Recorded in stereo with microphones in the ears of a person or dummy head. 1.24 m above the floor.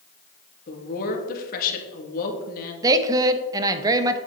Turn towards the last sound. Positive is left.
turn(degrees=-20)  # may be behind; listen again after turning